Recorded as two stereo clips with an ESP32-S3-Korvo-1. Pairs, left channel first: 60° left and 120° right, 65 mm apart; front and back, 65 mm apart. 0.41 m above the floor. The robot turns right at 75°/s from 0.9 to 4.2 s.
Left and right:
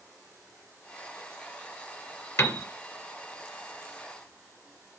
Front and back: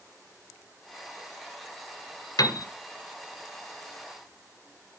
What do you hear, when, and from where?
2.4 s a piano: 20° left, 1.9 m; by 2.7 s 40° left, 1.9 m